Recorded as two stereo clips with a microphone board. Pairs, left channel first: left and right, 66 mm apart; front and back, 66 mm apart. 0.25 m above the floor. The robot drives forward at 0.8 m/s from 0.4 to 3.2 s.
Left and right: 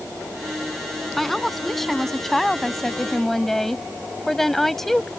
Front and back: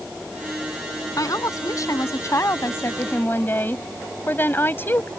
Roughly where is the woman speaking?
Ahead.